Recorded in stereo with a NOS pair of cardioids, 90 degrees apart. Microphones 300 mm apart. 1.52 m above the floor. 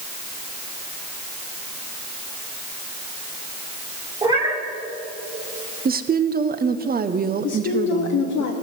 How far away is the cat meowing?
About 2.5 m.